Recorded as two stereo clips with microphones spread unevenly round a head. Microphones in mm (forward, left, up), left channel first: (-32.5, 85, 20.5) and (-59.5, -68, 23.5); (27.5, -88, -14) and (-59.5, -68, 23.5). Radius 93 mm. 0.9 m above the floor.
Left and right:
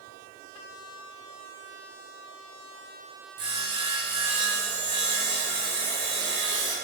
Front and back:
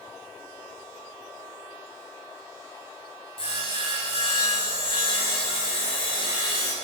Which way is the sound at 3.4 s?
30° right.